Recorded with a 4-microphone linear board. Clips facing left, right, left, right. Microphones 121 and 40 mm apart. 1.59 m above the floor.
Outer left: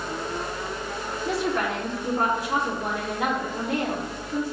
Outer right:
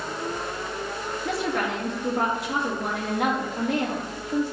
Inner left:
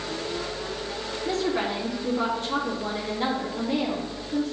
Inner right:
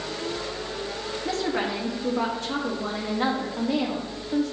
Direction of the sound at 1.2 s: 70° right (ahead or behind).